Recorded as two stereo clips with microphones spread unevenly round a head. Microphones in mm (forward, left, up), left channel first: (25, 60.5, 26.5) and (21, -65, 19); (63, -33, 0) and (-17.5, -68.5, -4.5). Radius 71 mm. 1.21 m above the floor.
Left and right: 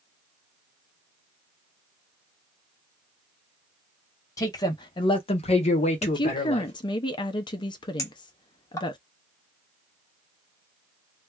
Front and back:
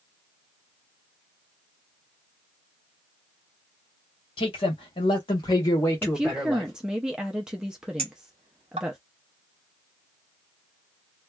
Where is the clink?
155° left, 0.6 m.